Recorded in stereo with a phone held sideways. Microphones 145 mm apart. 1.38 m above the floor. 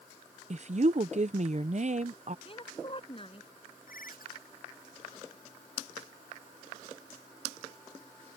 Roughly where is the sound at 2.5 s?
Left.